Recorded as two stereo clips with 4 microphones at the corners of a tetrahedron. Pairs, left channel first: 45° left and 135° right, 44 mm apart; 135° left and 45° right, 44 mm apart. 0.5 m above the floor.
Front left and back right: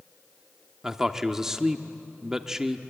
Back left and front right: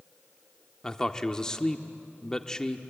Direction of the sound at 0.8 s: 175° left.